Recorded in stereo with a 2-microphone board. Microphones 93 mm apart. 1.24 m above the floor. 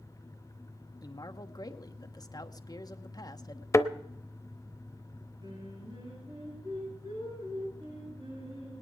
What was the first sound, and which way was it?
A man speaking, 40° left (ahead or behind).